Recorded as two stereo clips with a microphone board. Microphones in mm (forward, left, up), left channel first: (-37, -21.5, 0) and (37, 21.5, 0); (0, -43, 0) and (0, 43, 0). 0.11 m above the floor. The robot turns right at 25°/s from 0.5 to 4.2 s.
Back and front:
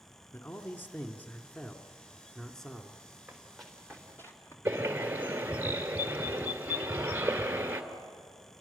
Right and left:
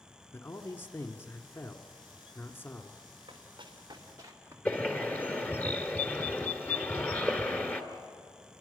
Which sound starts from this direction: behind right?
A man speaking, at 0.3 s.